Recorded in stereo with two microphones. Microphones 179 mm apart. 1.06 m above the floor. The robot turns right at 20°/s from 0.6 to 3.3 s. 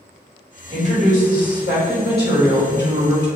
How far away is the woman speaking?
About 1.3 m.